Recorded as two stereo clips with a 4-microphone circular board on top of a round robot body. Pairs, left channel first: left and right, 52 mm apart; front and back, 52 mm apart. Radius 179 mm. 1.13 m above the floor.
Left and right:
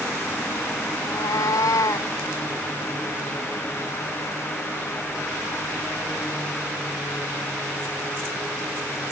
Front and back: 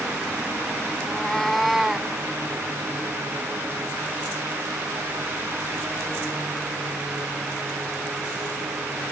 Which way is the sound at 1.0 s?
75° left.